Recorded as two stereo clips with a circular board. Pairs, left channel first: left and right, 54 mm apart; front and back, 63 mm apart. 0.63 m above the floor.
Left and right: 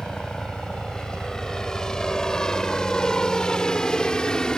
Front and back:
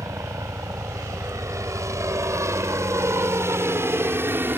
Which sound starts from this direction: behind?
A helicopter, at 0.0 s.